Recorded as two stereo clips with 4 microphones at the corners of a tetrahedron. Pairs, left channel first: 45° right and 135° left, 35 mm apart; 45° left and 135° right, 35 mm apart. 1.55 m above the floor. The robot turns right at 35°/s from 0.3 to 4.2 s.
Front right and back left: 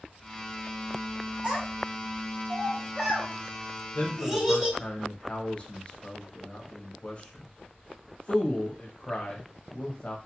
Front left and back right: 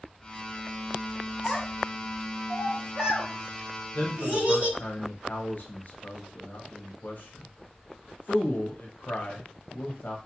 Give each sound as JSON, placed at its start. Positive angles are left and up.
{"t": 1.4, "sound": "a child speaking", "azimuth_deg": 140, "distance_m": 1.3}
{"t": 4.0, "sound": "a man speaking", "azimuth_deg": 5, "distance_m": 0.7}